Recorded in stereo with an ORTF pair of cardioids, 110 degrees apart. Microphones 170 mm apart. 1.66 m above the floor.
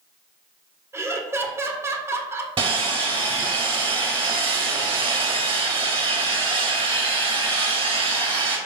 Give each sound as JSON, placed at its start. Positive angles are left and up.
{"t": 0.9, "sound": "laughter", "azimuth_deg": -15, "distance_m": 0.9}
{"t": 2.6, "sound": "sawing", "azimuth_deg": -30, "distance_m": 2.0}